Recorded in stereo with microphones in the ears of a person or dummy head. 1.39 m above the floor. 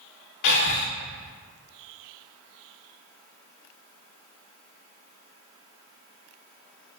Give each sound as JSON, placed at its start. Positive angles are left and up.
{"t": 0.4, "sound": "breathing", "side_deg": 60, "distance_m": 0.5}